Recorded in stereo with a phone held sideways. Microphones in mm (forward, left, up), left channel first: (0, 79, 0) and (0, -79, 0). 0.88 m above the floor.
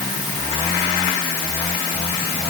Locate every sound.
Only background noise.